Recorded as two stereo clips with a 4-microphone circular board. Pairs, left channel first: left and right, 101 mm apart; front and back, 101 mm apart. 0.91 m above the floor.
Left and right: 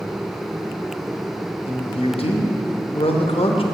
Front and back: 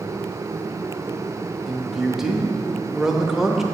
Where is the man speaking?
95° left, 0.8 m.